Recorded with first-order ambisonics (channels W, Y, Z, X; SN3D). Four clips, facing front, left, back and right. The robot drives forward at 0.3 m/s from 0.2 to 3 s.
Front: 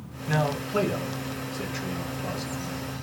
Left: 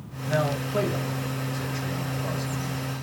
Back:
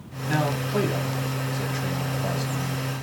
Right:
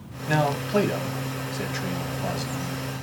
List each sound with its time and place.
0.3 s a man speaking: 85° right, 2 m; by 2.8 s 105° right, 2 m